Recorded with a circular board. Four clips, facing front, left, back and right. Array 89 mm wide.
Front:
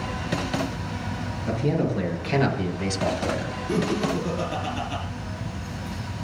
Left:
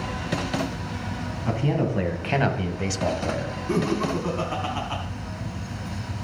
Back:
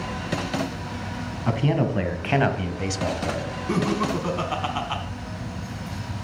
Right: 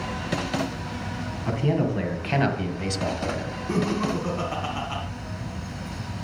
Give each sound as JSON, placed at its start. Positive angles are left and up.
{"t": 1.5, "sound": "a man speaking", "azimuth_deg": 180, "distance_m": 1.7}
{"t": 3.7, "sound": "laughter", "azimuth_deg": 175, "distance_m": 2.0}